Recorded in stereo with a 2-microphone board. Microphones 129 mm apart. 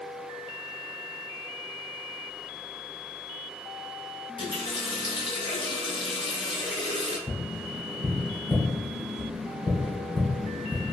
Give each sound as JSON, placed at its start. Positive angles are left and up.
{"t": 4.4, "sound": "a running tap", "side_deg": 40, "distance_m": 0.9}
{"t": 7.3, "sound": "tapping", "side_deg": 20, "distance_m": 1.3}